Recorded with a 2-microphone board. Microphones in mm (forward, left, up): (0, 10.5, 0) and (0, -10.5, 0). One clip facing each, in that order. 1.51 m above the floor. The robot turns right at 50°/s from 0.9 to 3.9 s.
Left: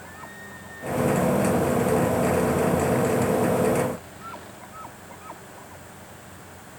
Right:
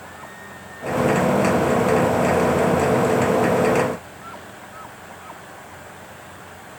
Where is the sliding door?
No sliding door in this recording.